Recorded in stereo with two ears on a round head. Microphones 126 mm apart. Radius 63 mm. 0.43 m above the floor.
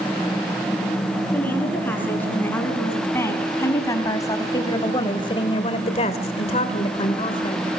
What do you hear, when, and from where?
1.3 s a woman speaking: 15° left (ahead or behind), 6 m; by 7.7 s 35° left (ahead or behind), 2.5 m